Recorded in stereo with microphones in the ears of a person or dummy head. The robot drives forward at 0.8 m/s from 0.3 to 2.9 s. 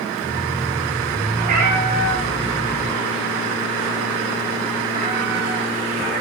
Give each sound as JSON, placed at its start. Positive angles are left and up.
{"t": 1.4, "sound": "a cat meowing", "side_deg": -50, "distance_m": 2.5}